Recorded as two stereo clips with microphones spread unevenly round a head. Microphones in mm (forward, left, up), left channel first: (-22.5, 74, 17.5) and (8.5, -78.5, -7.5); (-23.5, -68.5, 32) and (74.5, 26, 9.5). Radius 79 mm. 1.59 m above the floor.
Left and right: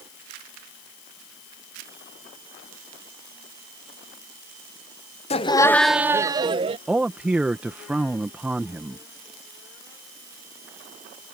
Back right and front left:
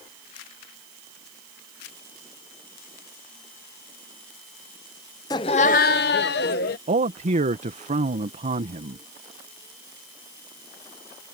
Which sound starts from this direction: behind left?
Laughter, at 5.3 s.